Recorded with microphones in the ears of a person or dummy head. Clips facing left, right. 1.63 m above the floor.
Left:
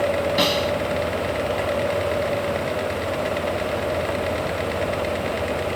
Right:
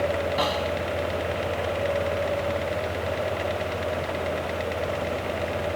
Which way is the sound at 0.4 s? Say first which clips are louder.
Left 5 dB; 35° left (ahead or behind).